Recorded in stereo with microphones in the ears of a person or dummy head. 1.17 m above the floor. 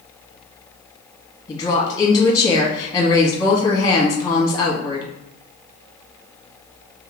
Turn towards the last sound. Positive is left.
turn(degrees=20)  # may be behind; listen again after turning